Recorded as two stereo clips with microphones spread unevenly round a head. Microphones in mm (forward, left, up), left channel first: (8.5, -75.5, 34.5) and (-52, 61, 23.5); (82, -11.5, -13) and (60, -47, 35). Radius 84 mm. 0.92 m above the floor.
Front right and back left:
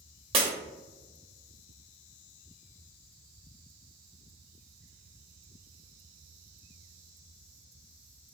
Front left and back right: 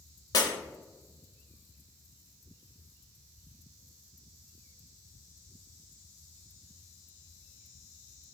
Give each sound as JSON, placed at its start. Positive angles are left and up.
{"t": 0.3, "sound": "breaking glass", "azimuth_deg": 140, "distance_m": 0.7}